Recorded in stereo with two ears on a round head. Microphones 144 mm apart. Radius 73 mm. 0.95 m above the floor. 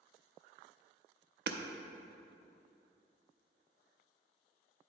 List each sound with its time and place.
1.5 s hammering: 75° right (ahead or behind), 0.5 m